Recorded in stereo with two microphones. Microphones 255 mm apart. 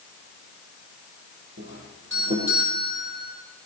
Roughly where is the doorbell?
Right.